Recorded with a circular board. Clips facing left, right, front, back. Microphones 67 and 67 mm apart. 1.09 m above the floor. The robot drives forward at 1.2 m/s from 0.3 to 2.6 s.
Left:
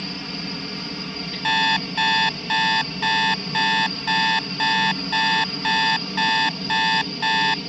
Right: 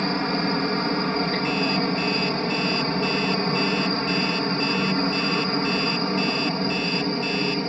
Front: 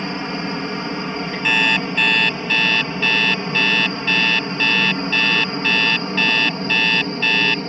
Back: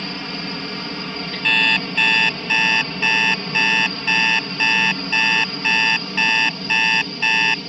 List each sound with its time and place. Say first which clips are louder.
0.0 s a helicopter: right 9 dB, front 4 dB; 65° right; by 7.7 s 50° right
1.4 s an alarm clock: left 2 dB, even; 80° left; by 7.6 s 105° left